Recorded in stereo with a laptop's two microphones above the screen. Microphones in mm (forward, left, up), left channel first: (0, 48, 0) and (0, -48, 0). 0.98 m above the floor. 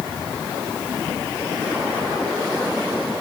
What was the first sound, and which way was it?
Only background noise.